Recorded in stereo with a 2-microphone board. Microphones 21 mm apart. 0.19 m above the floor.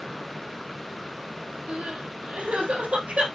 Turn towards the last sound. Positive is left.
turn(degrees=-55)  # may be behind; listen again after turning